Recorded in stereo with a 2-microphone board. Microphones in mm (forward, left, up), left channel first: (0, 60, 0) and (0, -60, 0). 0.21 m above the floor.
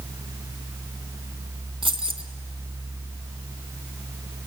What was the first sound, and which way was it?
Keys jangling, 45° right (ahead or behind).